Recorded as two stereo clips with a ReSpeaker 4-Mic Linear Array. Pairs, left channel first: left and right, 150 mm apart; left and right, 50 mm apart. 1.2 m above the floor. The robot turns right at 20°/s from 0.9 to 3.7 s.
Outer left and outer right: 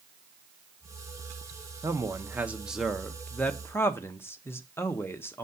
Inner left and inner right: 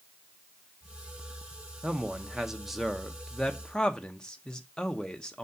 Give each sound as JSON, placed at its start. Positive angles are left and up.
{"t": 1.8, "sound": "a man speaking", "azimuth_deg": -25, "distance_m": 0.9}